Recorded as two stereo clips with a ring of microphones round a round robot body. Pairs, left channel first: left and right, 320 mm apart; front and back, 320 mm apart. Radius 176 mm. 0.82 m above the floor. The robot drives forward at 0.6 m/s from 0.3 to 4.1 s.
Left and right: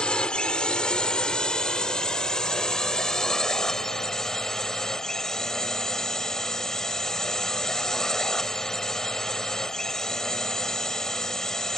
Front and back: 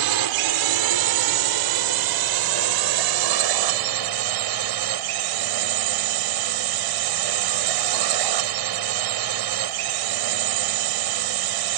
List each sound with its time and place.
0.0 s a drone: 175° left; by 11.8 s straight behind